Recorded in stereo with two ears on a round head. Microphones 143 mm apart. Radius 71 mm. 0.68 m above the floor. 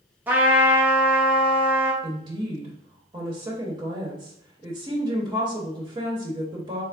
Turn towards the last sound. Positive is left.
turn(degrees=-30)  # may be behind; listen again after turning